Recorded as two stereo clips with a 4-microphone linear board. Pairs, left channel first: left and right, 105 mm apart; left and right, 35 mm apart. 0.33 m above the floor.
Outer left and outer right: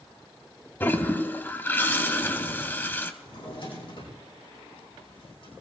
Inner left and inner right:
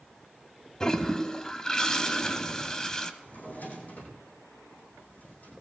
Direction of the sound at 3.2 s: 65° left (ahead or behind).